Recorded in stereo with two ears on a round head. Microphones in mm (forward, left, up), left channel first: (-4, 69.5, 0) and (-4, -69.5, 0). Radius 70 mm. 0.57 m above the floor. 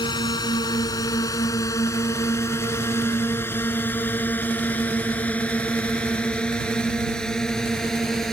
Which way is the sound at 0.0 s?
25° left (ahead or behind).